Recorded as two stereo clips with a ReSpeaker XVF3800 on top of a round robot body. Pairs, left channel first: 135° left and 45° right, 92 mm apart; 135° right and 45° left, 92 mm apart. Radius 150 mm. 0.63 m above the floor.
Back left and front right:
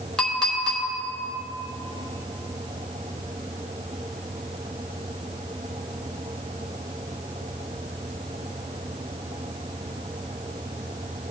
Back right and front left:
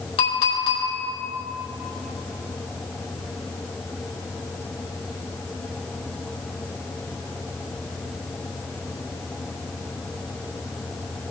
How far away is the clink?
About 2.5 m.